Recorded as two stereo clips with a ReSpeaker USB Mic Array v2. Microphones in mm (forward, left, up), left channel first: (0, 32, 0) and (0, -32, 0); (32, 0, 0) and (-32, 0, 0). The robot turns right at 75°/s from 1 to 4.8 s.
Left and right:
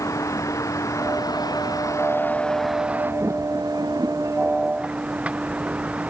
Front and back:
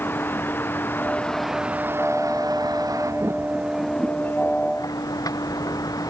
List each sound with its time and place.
0.0 s a vehicle: 55° left; by 6.1 s 20° right